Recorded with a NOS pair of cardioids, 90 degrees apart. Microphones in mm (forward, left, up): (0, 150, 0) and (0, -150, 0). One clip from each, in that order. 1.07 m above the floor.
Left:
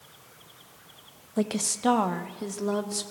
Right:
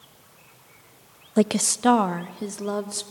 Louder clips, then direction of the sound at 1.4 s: Right 6 dB; 45° right.